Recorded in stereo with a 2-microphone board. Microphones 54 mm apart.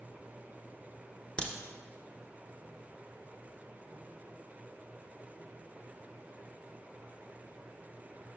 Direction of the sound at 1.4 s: 20° left (ahead or behind).